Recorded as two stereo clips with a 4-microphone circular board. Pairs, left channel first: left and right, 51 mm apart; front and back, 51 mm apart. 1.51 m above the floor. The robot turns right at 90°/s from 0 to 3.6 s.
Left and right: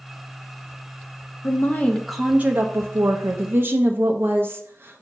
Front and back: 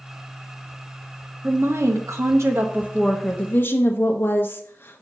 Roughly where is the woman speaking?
Behind left.